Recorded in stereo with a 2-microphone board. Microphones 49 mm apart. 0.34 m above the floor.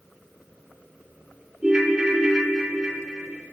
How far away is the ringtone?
About 2 m.